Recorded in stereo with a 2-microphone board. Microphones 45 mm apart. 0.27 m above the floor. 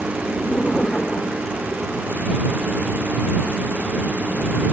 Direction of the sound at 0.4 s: 30° left (ahead or behind).